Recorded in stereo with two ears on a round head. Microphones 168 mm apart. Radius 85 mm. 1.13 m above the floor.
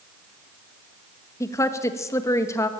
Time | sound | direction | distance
1.4 | a woman speaking | 15° left (ahead or behind) | 1.6 m